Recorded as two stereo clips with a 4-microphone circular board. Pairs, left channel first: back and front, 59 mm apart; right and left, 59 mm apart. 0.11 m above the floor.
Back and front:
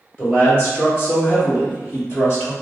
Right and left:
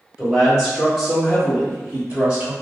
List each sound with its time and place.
0.2 s a man speaking: 170° left, 1.8 m; by 2.5 s 150° left, 2.5 m